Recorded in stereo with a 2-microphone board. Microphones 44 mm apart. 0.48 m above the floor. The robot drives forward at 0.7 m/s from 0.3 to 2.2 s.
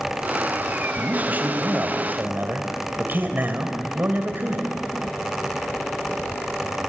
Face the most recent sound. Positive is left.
turn(degrees=-45)  # may be behind; listen again after turning